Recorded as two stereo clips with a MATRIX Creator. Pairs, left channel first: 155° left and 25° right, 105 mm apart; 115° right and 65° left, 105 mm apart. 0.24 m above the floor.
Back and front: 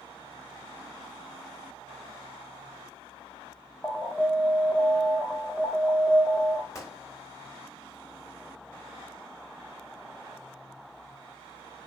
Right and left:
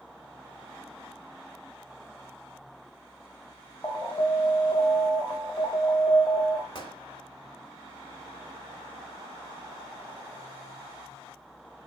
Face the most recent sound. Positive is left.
turn(degrees=-145)